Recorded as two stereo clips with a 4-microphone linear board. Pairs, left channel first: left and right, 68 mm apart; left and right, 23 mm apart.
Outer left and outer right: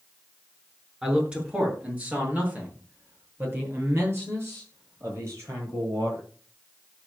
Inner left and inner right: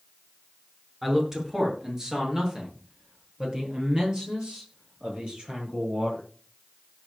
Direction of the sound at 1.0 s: 15° right (ahead or behind).